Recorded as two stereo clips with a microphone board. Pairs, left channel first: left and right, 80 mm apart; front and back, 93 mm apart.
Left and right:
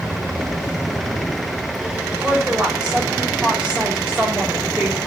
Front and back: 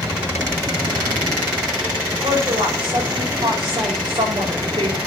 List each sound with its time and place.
2.2 s a woman speaking: 165° right, 4 m